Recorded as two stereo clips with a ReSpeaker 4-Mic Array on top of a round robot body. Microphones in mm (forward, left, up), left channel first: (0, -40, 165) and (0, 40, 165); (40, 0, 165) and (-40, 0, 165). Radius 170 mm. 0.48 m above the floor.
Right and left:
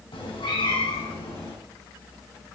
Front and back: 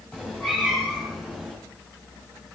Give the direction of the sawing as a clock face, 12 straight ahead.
I don't hear sawing.